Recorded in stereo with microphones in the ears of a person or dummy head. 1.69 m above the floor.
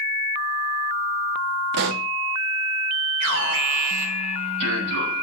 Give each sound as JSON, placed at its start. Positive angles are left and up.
{"t": 1.7, "sound": "a pop", "side_deg": -55, "distance_m": 0.9}
{"t": 3.2, "sound": "an alarm", "side_deg": -65, "distance_m": 6.0}